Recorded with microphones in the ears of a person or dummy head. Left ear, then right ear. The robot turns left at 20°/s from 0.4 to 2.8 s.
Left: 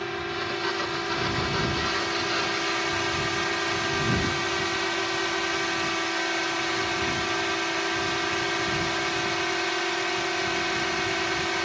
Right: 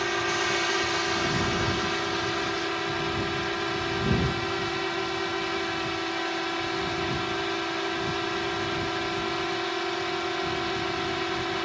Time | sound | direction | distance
0.0 | a drone | 155° right | ?